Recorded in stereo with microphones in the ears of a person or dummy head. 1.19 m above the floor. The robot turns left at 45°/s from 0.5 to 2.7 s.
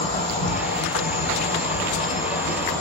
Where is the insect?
115° left, 1.5 m; by 2.8 s 15° left, 1.5 m.